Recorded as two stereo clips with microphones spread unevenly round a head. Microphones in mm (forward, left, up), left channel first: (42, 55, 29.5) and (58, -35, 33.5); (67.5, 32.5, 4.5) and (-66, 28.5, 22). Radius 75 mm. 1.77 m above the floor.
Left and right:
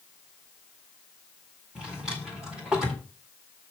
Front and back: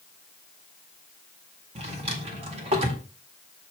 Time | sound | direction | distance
1.8 | a drawer | 160° right | 1.9 m